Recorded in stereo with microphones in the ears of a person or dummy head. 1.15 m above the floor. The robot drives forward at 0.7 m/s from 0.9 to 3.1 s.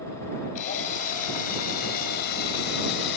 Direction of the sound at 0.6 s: 40° left (ahead or behind).